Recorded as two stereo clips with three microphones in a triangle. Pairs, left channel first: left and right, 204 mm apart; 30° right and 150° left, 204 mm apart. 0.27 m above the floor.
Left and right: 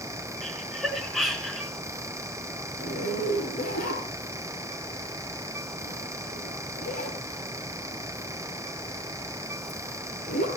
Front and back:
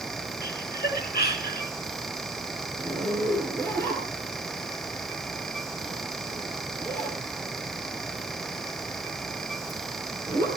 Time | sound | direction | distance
0.4 | laughter | straight ahead | 3.5 m
2.8 | a zipper | 45° left | 5 m